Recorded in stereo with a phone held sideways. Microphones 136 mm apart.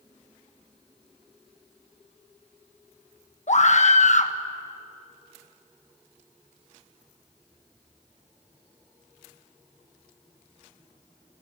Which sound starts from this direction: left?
A scream, at 3.5 s.